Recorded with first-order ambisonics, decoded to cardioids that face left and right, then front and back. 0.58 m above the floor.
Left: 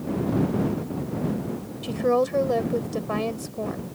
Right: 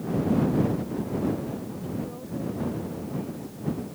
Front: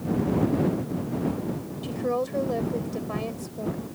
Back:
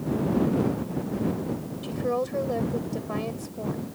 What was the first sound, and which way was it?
A woman speaking, 90° left.